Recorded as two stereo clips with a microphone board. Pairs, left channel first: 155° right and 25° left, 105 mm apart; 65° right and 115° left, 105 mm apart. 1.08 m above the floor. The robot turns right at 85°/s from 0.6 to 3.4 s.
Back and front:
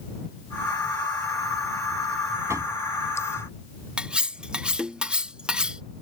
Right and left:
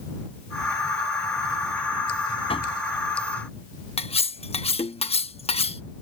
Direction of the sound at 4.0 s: 60° right.